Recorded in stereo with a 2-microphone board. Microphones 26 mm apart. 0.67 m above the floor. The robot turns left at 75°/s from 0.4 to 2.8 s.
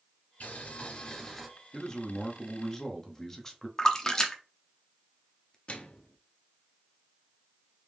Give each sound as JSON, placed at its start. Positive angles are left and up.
{"t": 0.4, "sound": "boiling", "azimuth_deg": 85, "distance_m": 1.7}
{"t": 1.7, "sound": "a man speaking", "side_deg": 25, "distance_m": 0.7}
{"t": 3.8, "sound": "a splash", "side_deg": 25, "distance_m": 0.6}
{"t": 5.7, "sound": "a microwave", "side_deg": 50, "distance_m": 0.5}